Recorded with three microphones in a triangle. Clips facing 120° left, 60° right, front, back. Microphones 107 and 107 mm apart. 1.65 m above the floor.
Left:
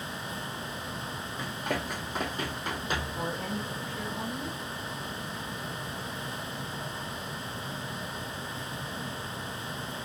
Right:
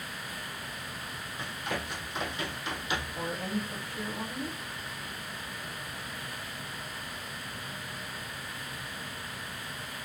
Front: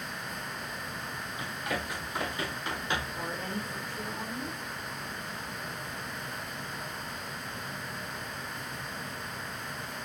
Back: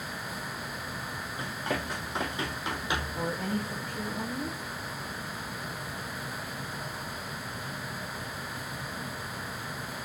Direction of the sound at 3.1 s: 170° right.